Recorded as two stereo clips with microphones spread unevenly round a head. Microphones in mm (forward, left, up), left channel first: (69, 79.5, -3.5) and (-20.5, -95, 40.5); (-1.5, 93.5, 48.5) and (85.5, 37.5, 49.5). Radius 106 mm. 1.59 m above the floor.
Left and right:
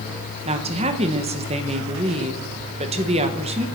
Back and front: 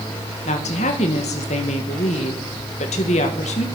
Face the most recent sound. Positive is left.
turn(degrees=180)